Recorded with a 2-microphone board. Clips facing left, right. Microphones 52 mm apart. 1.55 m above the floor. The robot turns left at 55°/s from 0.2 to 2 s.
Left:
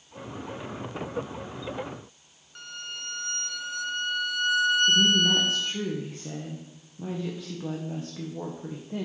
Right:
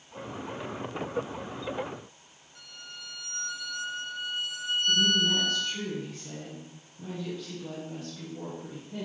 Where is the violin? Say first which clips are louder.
Left 7 dB; 60° left (ahead or behind), 0.6 m.